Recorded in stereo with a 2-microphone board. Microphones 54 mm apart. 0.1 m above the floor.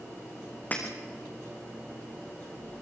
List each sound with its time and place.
0.7 s breaking glass: 30° left (ahead or behind), 4.5 m